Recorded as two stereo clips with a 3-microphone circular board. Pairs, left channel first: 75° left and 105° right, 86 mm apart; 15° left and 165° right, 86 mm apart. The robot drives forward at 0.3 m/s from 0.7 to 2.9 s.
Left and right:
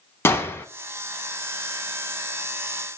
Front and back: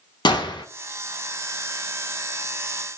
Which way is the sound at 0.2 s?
15° left.